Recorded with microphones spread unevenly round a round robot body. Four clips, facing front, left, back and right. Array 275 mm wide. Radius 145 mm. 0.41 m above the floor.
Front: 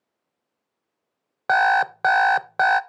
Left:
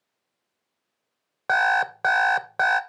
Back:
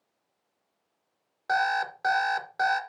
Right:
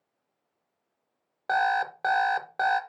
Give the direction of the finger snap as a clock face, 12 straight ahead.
I don't hear a finger snap.